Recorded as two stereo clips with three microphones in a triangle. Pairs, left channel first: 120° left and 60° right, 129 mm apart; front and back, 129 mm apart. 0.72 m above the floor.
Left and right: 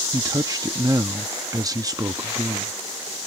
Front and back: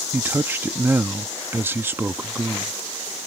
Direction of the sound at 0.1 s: 110° right.